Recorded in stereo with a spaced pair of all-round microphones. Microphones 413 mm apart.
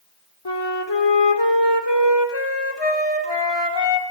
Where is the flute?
80° left, 2 m.